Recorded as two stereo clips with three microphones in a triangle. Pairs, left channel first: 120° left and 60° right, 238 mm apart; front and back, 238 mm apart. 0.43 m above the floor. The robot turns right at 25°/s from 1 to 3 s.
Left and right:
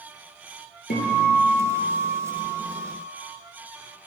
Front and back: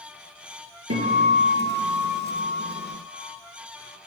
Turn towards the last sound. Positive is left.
turn(degrees=-140)